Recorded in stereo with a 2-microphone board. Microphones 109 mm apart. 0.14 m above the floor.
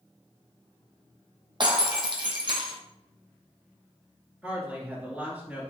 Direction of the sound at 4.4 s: 15° right (ahead or behind).